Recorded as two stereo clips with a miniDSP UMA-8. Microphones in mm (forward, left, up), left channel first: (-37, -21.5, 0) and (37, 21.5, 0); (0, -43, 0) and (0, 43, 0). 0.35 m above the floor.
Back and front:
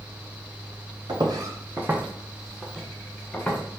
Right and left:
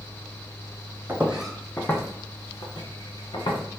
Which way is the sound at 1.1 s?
30° left.